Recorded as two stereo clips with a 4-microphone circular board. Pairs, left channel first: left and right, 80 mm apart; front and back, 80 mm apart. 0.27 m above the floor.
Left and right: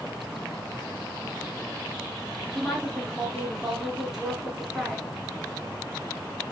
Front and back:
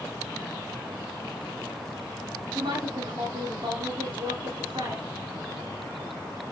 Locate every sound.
2.5 s a woman speaking: 175° right, 4.5 m